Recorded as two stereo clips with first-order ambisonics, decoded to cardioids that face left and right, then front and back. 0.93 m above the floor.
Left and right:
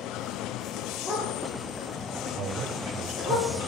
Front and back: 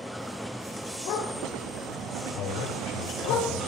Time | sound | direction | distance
1.1 | a dog barking | 20° left | 9 m
2.4 | a man speaking | 35° right | 3.5 m